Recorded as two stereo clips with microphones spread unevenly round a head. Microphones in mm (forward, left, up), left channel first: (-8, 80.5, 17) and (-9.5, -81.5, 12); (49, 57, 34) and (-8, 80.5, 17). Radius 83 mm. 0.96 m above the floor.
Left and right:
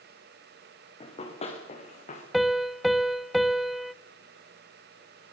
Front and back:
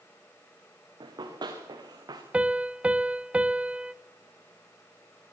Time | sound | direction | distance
1.0 | running footsteps | 150° left | 5 m
2.3 | a piano | 175° right | 0.7 m